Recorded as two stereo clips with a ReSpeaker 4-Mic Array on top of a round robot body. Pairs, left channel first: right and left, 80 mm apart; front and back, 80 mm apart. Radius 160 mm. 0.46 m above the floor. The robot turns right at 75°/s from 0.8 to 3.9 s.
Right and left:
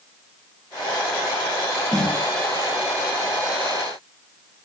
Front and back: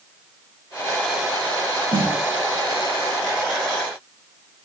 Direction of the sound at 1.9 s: Straight behind.